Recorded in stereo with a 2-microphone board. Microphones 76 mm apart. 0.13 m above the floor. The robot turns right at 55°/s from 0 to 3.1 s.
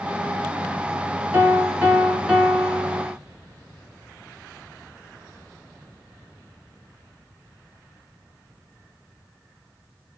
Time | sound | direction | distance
1.3 | a piano | 20° right (ahead or behind) | 1.6 m